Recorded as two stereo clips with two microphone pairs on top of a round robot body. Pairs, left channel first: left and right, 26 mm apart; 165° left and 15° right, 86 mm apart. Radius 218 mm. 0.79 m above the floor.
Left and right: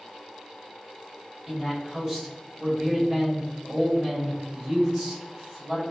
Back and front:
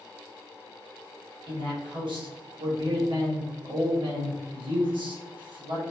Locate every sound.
1.5 s a man speaking: 30° right, 1.7 m